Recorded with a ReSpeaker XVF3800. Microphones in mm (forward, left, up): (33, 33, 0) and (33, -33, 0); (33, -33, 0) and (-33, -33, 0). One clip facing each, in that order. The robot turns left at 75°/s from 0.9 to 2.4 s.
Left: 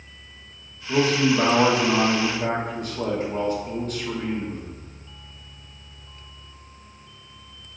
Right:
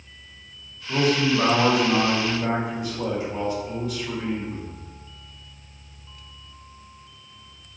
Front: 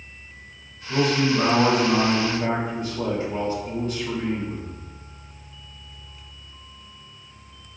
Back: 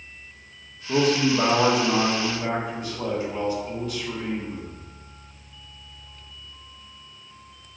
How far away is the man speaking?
About 1.2 m.